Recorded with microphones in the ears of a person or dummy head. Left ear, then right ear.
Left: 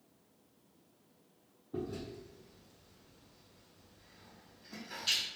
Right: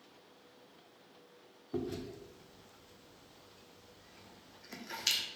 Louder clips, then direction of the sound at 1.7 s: Right 1 dB; 65° right (ahead or behind).